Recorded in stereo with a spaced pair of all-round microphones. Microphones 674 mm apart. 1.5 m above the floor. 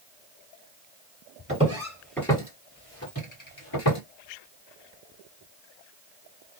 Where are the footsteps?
10° right (ahead or behind), 2.0 m; by 4.0 s 40° left (ahead or behind), 1.8 m.